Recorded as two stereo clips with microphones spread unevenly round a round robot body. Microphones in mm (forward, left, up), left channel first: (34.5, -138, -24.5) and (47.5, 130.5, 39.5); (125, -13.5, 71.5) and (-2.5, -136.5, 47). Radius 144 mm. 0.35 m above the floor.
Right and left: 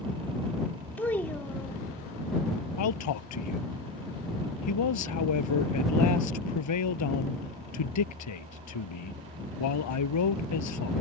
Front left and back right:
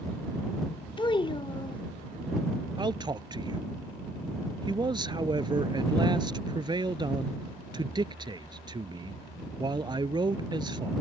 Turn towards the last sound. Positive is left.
turn(degrees=-70)